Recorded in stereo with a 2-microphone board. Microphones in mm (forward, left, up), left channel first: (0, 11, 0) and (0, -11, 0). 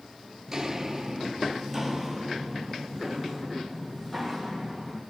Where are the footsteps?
15° right (ahead or behind), 1.2 m; by 5.0 s 15° left (ahead or behind), 3 m.